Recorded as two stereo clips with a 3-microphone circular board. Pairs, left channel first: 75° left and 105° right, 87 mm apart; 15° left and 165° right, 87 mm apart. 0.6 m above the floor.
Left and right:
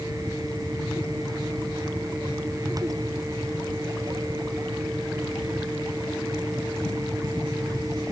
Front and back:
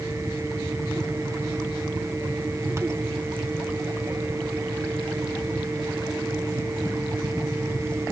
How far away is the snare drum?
I don't hear a snare drum.